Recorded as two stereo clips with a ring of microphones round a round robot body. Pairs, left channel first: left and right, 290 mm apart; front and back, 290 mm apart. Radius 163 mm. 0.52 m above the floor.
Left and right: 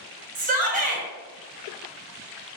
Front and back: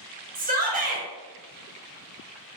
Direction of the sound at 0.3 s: 135° right.